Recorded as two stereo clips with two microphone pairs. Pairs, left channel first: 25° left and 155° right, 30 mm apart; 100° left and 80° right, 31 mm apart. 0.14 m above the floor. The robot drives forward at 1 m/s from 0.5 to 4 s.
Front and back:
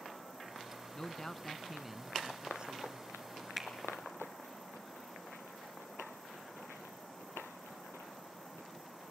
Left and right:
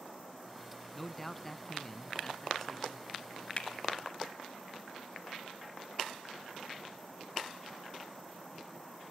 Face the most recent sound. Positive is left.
turn(degrees=135)